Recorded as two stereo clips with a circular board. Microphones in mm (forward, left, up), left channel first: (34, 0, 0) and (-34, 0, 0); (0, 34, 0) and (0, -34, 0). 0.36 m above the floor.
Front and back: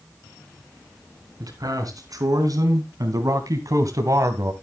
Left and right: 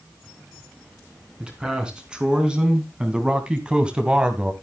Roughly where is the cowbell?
No cowbell in this recording.